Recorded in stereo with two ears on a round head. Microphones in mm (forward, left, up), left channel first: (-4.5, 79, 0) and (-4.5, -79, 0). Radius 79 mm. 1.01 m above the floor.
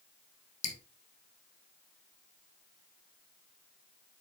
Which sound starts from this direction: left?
Dripping, at 0.6 s.